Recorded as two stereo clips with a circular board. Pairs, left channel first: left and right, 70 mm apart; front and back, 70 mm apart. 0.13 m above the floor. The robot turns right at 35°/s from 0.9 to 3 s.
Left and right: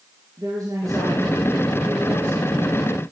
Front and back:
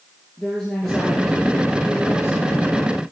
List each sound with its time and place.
0.4 s a woman speaking: 85° right, 2.5 m; by 3.0 s 10° right, 2.5 m